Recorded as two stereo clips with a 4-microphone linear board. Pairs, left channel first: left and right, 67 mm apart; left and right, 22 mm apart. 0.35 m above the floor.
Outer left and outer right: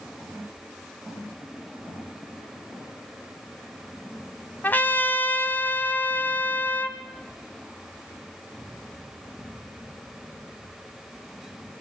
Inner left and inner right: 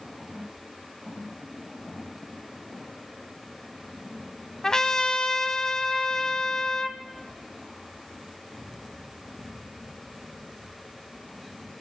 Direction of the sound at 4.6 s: 25° left (ahead or behind).